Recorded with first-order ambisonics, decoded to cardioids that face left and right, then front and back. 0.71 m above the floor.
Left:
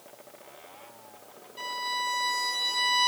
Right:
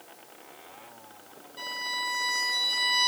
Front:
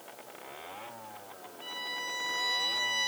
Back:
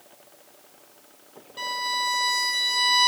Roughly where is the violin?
Behind.